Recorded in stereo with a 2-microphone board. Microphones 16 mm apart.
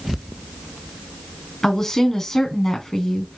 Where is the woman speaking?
25° left (ahead or behind), 3 m.